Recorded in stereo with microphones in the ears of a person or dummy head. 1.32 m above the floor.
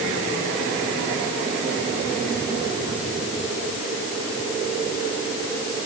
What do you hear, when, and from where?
Only background noise.